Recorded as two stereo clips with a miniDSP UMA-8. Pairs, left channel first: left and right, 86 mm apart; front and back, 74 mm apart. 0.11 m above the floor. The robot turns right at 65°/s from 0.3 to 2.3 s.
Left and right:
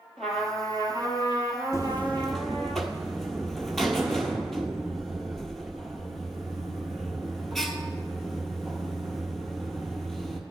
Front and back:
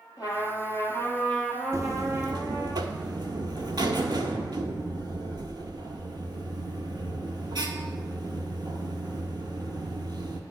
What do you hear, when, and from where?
0.2 s a trumpet: 5° left, 1.7 m; by 2.7 s 135° left, 1.7 m
1.7 s a buzzer: 140° left, 0.8 m; by 10.4 s 175° left, 0.8 m